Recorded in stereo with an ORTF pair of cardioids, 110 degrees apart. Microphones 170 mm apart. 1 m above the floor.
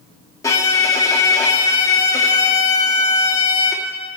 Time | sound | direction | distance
0.4 | a violin | 20° left | 1.6 m